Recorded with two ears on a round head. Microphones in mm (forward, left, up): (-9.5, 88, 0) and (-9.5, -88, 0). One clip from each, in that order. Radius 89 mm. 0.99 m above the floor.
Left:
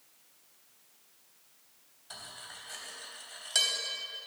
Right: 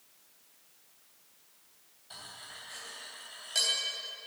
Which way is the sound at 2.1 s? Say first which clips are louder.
Left 1 dB; 50° left (ahead or behind).